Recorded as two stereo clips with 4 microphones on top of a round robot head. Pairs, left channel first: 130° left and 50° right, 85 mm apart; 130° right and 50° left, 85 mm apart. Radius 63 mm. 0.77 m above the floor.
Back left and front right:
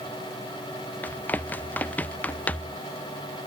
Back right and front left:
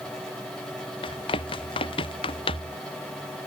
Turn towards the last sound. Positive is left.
turn(degrees=-155)